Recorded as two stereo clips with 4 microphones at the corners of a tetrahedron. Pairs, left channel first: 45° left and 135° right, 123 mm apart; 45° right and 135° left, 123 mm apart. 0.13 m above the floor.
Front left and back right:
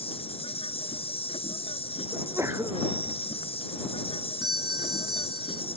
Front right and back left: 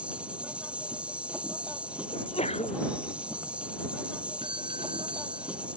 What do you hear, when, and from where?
0.0 s an insect: 55° left
2.1 s a sneeze: 70° right
4.4 s a doorbell: 175° left